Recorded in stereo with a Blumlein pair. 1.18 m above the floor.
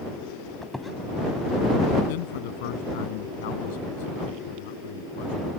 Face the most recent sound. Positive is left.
turn(degrees=50)